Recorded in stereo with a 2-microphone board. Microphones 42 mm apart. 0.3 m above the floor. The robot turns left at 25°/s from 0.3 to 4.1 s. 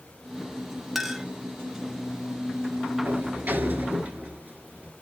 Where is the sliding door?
60° right (ahead or behind), 1.1 m; by 4.9 s 35° right (ahead or behind), 1.1 m.